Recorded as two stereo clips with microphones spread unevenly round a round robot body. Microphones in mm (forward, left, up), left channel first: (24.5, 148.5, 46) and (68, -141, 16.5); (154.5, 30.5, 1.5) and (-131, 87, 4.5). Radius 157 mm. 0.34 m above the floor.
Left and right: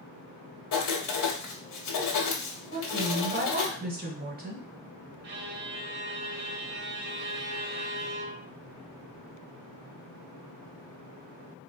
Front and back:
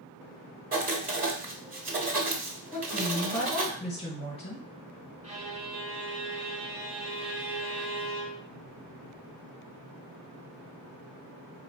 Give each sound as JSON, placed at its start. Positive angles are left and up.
{"t": 0.7, "sound": "writing", "azimuth_deg": 115, "distance_m": 1.2}
{"t": 2.7, "sound": "a woman speaking", "azimuth_deg": -65, "distance_m": 1.3}
{"t": 5.2, "sound": "a violin", "azimuth_deg": -120, "distance_m": 0.7}